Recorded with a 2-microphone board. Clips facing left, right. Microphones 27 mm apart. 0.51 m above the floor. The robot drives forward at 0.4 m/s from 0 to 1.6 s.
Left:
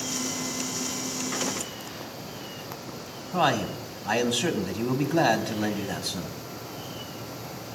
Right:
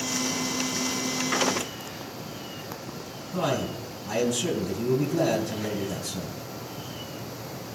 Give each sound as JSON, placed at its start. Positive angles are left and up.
{"t": 3.3, "sound": "a man speaking", "side_deg": 70, "distance_m": 3.0}